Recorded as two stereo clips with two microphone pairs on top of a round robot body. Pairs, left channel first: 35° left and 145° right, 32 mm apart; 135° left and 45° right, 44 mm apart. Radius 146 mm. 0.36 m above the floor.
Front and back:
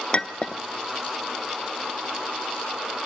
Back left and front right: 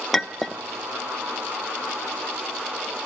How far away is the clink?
About 1.0 m.